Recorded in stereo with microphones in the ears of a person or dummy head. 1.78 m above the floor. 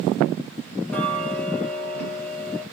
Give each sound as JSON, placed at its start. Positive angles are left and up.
{"t": 0.9, "sound": "ticking", "side_deg": 5, "distance_m": 4.0}